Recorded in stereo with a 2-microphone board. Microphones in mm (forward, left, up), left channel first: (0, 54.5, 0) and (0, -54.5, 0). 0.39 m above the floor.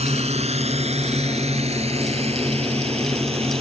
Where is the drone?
75° right (ahead or behind); by 3.6 s 65° right (ahead or behind).